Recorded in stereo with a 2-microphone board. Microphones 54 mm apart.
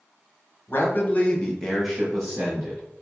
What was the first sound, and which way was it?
A man speaking, 45° left (ahead or behind).